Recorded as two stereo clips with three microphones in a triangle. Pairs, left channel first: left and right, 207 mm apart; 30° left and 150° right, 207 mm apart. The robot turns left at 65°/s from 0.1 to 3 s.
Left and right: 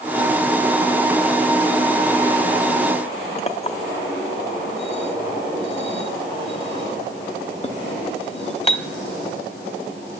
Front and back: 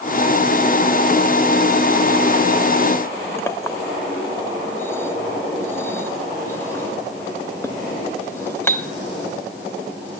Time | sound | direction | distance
3.4 | a clink | 95° left | 0.9 m